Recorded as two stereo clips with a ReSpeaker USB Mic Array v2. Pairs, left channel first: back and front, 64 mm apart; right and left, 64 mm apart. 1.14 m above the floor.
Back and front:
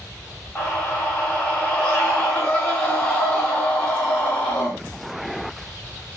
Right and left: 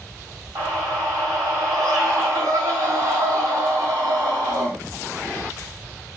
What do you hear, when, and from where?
0.6 s a scream: 105° left, 2.5 m